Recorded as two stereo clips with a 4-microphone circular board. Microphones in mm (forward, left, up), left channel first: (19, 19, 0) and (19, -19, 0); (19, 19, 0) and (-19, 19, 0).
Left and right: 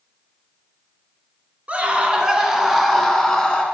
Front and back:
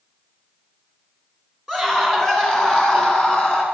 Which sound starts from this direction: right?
A scream, at 1.7 s.